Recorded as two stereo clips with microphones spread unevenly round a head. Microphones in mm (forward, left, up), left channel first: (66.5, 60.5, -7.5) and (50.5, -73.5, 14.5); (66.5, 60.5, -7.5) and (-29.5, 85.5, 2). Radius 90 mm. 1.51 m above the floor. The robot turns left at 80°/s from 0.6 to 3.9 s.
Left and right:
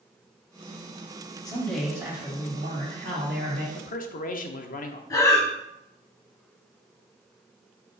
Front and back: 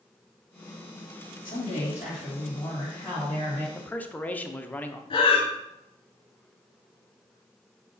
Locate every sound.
1.4 s a man speaking: 20° left, 2 m; by 3.6 s 155° right, 2 m
3.8 s a man speaking: 70° left, 0.7 m; by 5.0 s 60° left, 0.7 m
5.1 s breathing: 15° left, 0.8 m